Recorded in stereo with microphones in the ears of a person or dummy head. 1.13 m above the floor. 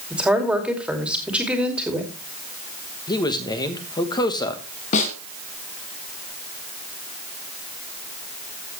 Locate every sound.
0.1 s a woman speaking: 5° right (ahead or behind), 2.5 m
3.1 s a man speaking: 20° left (ahead or behind), 1.4 m
4.9 s a snare drum: 45° left (ahead or behind), 2.0 m